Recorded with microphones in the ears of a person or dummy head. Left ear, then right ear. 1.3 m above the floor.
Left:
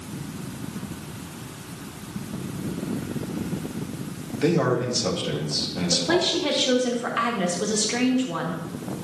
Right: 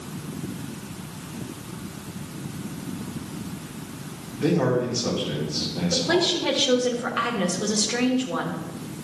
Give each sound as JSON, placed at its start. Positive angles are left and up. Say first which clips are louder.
{"t": 4.4, "sound": "a man speaking", "louder": "even", "side_deg": 80, "distance_m": 2.5}
{"t": 5.9, "sound": "a woman speaking", "louder": "even", "side_deg": 10, "distance_m": 1.3}